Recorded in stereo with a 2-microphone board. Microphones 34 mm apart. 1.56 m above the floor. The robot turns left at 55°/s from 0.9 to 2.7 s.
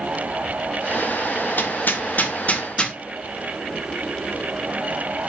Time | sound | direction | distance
1.6 | hammering | 70° left (ahead or behind) | 1.3 m